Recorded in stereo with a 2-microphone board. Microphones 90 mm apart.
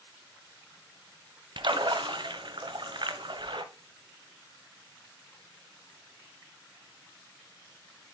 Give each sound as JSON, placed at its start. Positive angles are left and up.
{"t": 1.6, "sound": "a splash", "side_deg": -60, "distance_m": 1.2}